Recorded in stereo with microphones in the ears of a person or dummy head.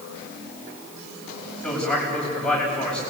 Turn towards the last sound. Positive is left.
turn(degrees=0)  # may be behind; listen again after turning